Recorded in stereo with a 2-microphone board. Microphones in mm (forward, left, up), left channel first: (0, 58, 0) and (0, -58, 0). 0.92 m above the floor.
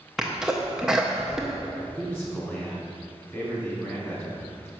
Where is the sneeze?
5° right (ahead or behind), 0.6 m.